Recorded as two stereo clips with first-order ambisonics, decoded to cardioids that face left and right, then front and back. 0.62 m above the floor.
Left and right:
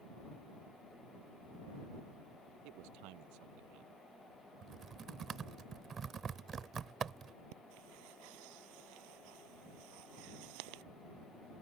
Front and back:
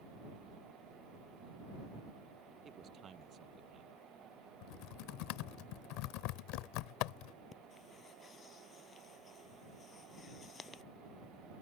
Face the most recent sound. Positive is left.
turn(degrees=-75)